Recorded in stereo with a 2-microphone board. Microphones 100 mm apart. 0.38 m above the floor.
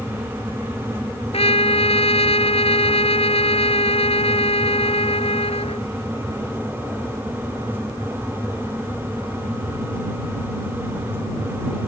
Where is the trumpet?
80° left.